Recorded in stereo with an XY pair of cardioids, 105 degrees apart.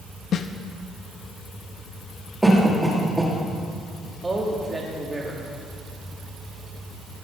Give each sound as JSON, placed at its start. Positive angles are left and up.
{"t": 0.3, "sound": "a snare drum", "azimuth_deg": 60, "distance_m": 0.7}
{"t": 2.4, "sound": "a cough", "azimuth_deg": -10, "distance_m": 2.5}
{"t": 4.2, "sound": "a man speaking", "azimuth_deg": -20, "distance_m": 2.5}